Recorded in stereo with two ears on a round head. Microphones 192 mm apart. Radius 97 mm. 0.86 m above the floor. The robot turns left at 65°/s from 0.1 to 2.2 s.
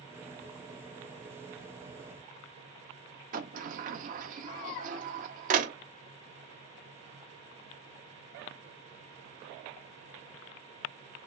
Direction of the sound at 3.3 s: 35° right (ahead or behind).